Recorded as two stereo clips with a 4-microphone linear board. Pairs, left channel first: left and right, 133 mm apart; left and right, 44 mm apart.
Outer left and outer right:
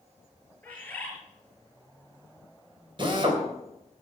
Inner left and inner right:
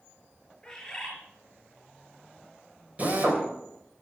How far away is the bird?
About 6 m.